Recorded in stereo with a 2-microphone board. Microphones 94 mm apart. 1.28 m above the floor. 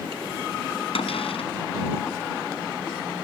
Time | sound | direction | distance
0.9 | a cupboard door | 80° left | ?